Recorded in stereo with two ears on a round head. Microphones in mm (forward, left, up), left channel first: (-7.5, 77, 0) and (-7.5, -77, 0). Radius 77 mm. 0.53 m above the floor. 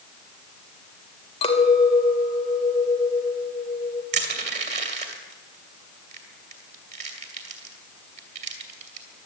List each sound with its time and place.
1.4 s a clink: 30° left (ahead or behind), 1.6 m
4.1 s crushing: 40° right (ahead or behind), 2 m